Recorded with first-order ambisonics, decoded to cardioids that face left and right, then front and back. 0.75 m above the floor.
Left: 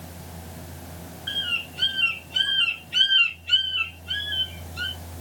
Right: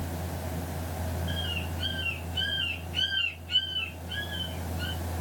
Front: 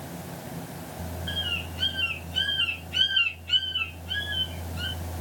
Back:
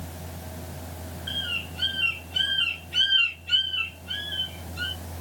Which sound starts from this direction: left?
A bird, at 1.3 s.